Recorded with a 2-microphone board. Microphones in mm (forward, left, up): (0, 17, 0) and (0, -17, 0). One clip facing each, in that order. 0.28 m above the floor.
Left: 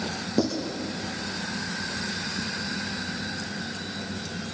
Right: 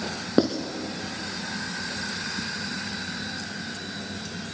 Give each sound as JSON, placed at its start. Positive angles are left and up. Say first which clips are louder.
{"t": 0.4, "sound": "writing", "louder": "right 4 dB", "side_deg": -40, "distance_m": 1.4}